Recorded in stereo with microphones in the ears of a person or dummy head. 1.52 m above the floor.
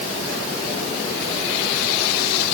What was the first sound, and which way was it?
Only background noise.